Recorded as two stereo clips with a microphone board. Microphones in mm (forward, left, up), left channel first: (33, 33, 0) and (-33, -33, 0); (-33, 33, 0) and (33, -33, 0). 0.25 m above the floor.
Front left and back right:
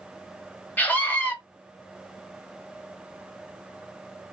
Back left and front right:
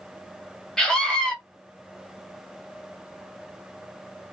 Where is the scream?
70° left, 1.0 m.